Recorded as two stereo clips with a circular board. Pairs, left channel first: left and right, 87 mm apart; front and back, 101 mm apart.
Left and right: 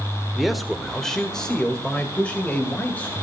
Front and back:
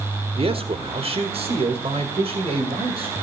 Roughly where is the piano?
I don't hear a piano.